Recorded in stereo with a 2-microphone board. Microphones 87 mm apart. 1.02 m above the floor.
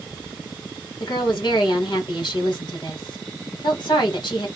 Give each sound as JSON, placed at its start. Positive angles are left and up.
{"t": 1.0, "sound": "a woman speaking", "side_deg": 60, "distance_m": 1.3}